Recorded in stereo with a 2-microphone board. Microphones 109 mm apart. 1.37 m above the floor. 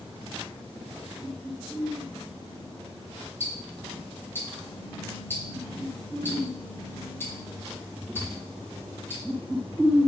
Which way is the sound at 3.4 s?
20° left (ahead or behind).